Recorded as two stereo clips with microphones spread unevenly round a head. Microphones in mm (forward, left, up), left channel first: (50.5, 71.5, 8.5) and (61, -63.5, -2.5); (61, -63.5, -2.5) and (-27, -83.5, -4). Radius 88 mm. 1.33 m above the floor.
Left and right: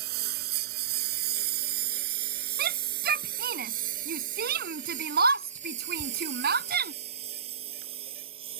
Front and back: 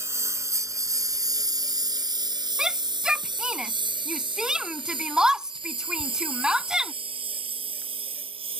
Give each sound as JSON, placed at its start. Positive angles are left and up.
{"t": 0.0, "sound": "a lawn mower", "azimuth_deg": -105}
{"t": 2.6, "sound": "a shout", "azimuth_deg": -85}